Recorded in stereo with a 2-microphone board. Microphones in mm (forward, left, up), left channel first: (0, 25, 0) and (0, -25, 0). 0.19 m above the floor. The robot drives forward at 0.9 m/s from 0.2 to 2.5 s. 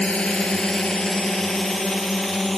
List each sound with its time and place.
0.0 s a drone: 25° left (ahead or behind); by 2.6 s 5° left (ahead or behind)